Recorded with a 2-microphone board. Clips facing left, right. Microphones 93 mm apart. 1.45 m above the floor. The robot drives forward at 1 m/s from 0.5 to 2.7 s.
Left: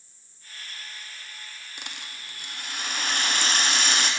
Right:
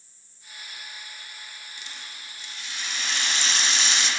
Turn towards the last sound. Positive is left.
turn(degrees=50)  # may be behind; listen again after turning